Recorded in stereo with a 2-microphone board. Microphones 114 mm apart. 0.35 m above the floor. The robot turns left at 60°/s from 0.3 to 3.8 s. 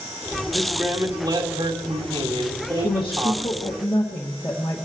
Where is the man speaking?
10° left, 2.5 m; by 3.8 s straight behind, 2.5 m.